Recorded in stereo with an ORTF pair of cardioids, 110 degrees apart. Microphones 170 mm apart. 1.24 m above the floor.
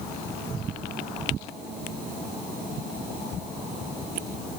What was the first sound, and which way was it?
Only background noise.